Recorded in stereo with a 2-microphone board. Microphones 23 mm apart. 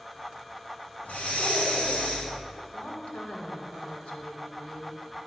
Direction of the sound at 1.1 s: 75° left (ahead or behind).